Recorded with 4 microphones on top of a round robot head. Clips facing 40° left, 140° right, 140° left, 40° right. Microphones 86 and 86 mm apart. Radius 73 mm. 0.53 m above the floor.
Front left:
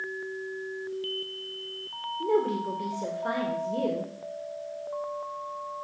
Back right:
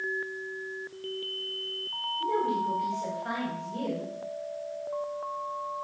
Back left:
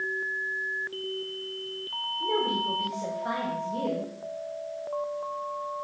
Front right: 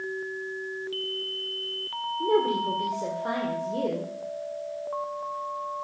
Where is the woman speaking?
5° left, 1.9 m.